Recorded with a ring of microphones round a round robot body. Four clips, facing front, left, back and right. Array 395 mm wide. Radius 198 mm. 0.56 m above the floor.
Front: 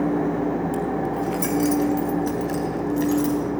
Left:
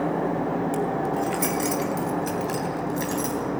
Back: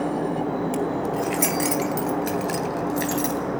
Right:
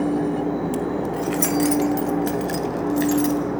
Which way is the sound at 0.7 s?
150° right.